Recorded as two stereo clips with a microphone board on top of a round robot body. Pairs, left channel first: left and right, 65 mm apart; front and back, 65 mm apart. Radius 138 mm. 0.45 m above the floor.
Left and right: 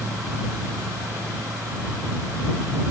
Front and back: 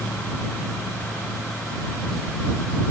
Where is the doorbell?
No doorbell in this recording.